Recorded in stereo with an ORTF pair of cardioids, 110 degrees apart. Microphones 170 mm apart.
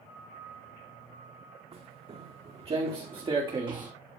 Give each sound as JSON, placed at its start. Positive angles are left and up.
{"t": 1.7, "sound": "footsteps", "azimuth_deg": -40, "distance_m": 6.5}